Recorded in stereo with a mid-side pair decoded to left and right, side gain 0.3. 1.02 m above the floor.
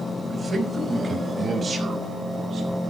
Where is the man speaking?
50° right, 5 m; by 2.8 s 60° right, 7.5 m.